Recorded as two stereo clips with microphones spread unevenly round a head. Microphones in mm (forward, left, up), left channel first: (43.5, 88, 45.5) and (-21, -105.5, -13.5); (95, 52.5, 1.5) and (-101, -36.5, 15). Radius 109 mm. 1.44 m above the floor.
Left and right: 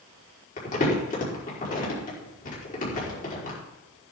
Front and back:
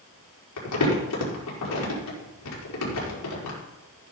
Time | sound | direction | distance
0.6 | crumpling | 20° left | 4.5 m